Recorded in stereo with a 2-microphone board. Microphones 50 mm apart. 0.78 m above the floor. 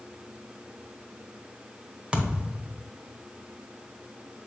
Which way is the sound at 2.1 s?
20° right (ahead or behind).